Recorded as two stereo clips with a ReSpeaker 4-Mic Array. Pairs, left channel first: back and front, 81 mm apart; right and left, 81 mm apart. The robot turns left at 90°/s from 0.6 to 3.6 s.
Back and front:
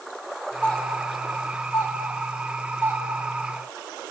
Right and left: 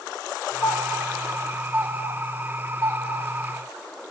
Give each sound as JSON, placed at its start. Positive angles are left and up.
{"t": 0.6, "sound": "a doorbell", "azimuth_deg": -105, "distance_m": 3.0}